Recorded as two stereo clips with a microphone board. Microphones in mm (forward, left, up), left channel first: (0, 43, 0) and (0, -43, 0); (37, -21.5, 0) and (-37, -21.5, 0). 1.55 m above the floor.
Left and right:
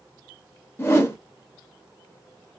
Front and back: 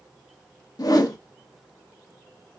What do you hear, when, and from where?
0.8 s a whoosh: 30° left, 0.7 m